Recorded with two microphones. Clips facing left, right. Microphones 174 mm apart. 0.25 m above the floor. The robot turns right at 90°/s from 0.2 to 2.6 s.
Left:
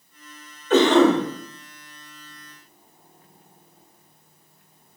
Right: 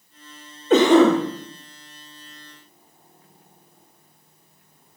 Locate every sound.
0.7 s a cough: 20° right (ahead or behind), 1.0 m; by 1.2 s 5° right (ahead or behind), 1.0 m